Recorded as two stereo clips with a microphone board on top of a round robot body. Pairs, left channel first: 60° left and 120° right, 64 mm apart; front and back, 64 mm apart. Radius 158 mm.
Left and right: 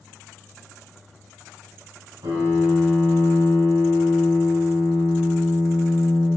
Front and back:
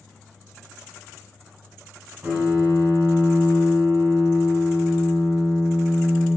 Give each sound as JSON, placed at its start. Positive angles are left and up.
{"t": 2.2, "sound": "a piano", "azimuth_deg": -115, "distance_m": 5.0}